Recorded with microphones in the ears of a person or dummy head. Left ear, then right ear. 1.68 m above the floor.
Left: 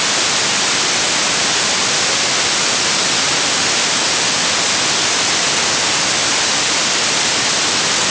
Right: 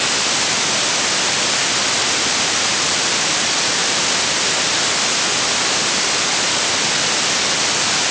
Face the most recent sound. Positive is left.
No sound to turn to.